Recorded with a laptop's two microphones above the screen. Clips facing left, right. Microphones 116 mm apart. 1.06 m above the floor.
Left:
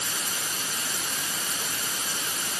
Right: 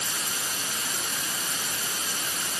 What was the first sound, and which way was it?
Only background noise.